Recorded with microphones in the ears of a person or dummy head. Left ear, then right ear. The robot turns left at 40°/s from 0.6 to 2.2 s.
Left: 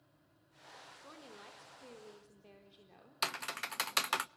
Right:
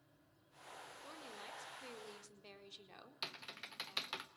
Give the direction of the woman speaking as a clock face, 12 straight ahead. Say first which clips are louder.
Right 1 dB; 12 o'clock.